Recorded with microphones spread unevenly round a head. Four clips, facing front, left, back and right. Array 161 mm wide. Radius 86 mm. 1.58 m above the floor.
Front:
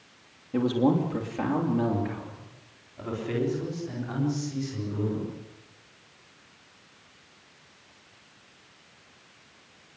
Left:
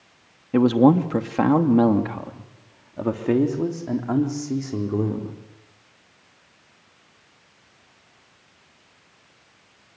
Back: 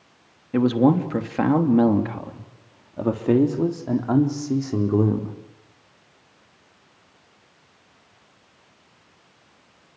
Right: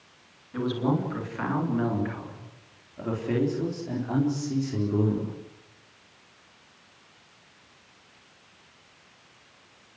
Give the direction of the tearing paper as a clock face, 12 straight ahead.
I don't hear tearing paper.